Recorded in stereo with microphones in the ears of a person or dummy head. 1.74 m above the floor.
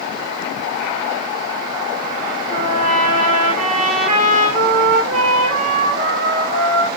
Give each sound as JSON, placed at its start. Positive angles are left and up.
{"t": 2.5, "sound": "a trumpet", "side_deg": -50, "distance_m": 3.5}